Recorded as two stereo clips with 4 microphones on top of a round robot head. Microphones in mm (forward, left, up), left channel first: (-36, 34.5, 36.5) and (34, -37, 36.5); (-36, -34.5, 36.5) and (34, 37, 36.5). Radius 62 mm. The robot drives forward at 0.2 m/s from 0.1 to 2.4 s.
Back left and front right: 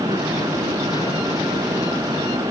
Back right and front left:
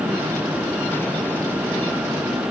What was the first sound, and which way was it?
Only background noise.